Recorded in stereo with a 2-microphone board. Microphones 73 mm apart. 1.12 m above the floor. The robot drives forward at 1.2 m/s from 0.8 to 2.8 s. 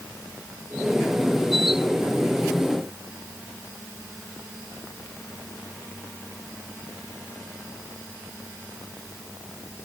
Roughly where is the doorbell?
I don't hear a doorbell.